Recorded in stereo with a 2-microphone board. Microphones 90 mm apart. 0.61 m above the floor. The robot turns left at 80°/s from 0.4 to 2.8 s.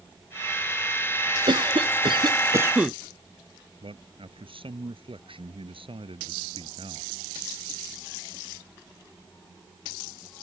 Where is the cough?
60° right; by 3.0 s 165° right.